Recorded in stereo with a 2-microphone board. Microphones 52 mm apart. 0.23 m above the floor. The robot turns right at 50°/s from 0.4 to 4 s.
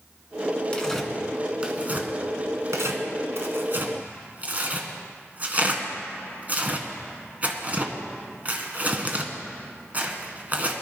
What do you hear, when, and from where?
0.7 s tearing paper: 20° left (ahead or behind), 1.6 m; by 10.7 s 35° right (ahead or behind), 1.6 m